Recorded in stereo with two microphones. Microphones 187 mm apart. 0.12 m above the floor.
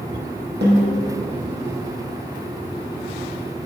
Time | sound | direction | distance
0.6 | a snare drum | 70° right (ahead or behind) | 4.5 m